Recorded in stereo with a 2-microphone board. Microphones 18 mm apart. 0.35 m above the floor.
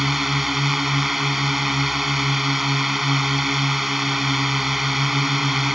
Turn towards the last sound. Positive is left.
turn(degrees=-5)  # may be behind; listen again after turning